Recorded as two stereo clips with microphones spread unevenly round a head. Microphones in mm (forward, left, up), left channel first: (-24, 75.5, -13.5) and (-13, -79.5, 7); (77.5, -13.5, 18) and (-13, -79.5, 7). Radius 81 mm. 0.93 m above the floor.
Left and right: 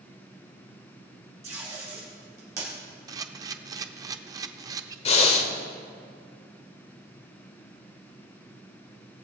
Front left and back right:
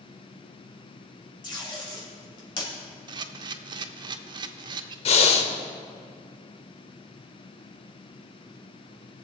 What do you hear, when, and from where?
1.4 s tape being pulled: 10° right, 3 m
3.1 s a camera shutter: 120° right, 0.6 m
5.0 s breathing: 40° left, 0.9 m